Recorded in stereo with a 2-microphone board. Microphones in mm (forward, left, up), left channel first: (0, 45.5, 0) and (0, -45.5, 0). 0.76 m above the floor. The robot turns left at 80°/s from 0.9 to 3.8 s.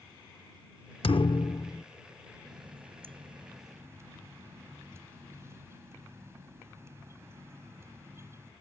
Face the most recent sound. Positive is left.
turn(degrees=-150)